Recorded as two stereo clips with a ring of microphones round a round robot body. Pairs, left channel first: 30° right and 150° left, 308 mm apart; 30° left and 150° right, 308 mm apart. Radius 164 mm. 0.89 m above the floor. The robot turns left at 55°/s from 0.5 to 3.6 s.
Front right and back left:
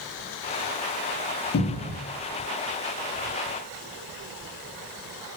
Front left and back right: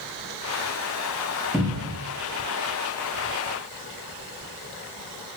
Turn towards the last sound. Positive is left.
turn(degrees=-175)